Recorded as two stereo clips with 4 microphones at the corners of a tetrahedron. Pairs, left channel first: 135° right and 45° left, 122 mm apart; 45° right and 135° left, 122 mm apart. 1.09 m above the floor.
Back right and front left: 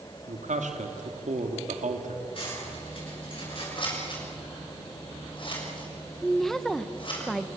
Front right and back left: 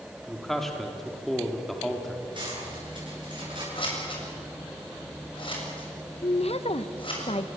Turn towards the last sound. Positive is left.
turn(degrees=-50)